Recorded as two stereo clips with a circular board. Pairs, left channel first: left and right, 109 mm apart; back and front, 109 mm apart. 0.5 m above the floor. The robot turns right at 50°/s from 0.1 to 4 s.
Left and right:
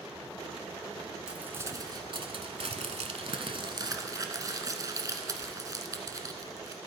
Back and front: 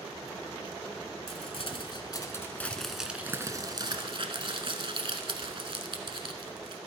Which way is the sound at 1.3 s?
170° right.